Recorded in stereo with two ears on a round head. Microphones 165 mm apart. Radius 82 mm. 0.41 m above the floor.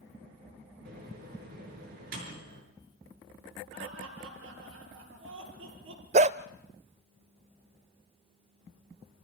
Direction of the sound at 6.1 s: 40° right (ahead or behind).